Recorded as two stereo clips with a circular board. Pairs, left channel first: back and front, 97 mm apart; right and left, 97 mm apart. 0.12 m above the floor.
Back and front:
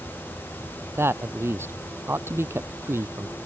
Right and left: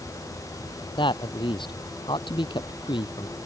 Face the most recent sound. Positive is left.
turn(degrees=-65)